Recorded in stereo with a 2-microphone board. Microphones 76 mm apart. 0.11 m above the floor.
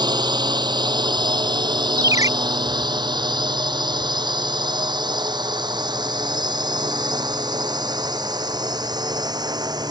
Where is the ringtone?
45° right (ahead or behind).